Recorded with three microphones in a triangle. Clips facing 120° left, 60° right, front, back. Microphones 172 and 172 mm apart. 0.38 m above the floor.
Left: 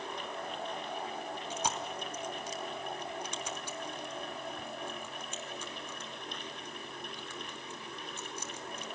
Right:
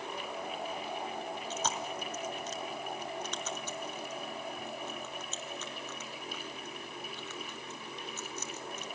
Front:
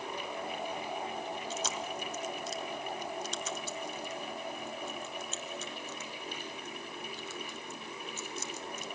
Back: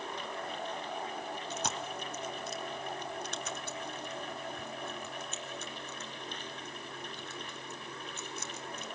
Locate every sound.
1.5 s chewing: 165° right, 2.5 m